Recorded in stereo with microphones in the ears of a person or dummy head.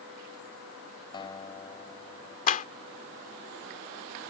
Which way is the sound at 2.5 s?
45° left (ahead or behind).